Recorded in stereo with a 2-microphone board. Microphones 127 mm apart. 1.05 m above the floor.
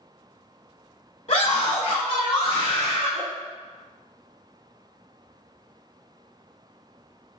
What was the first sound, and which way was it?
A scream, 60° left (ahead or behind).